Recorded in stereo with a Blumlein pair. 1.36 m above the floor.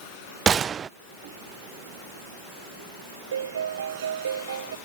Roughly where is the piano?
Ahead right.